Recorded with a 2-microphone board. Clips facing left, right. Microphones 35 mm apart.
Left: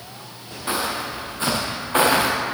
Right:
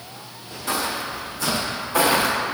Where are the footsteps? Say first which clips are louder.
Left 1 dB; 30° left (ahead or behind), 4.5 m; by 2.3 s 60° left (ahead or behind), 5 m.